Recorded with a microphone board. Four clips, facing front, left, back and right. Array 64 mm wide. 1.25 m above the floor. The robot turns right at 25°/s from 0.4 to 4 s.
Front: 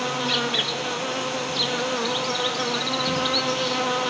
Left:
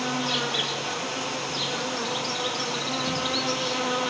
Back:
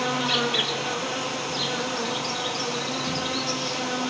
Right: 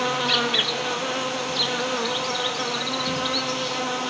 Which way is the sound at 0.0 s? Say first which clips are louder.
Right 4 dB, even; 85° right.